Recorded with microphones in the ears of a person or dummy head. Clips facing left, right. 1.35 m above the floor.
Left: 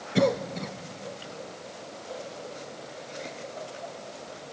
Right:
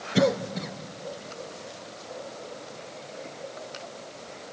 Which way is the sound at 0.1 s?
5° right (ahead or behind).